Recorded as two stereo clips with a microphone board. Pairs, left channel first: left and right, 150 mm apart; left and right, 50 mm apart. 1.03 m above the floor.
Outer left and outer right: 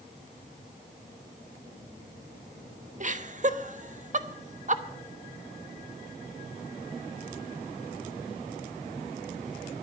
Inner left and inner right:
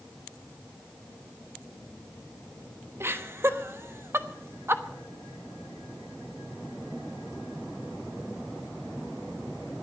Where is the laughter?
55° right (ahead or behind), 1.2 m.